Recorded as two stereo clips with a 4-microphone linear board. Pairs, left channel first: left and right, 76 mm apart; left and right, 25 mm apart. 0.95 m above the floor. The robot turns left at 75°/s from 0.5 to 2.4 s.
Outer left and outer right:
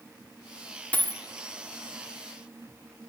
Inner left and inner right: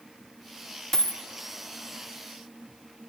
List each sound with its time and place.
0.9 s a dropped coin: 20° left (ahead or behind), 0.7 m; by 1.2 s 35° left (ahead or behind), 0.7 m